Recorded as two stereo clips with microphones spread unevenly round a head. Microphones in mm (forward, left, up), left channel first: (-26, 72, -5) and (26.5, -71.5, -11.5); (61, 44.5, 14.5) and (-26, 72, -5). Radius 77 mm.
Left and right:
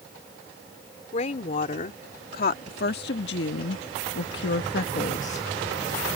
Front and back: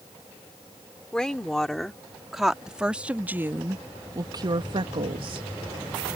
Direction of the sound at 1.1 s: 65° left.